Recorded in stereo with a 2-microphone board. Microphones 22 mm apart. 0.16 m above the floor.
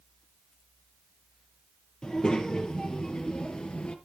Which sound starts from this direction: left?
A child speaking, at 2.0 s.